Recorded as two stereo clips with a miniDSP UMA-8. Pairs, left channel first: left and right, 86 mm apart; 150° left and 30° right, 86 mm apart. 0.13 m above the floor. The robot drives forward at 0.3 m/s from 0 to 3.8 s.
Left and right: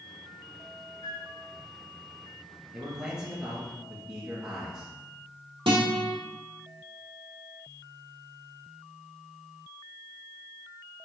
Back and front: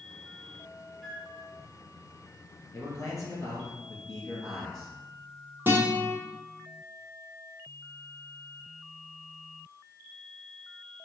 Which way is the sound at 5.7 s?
90° right.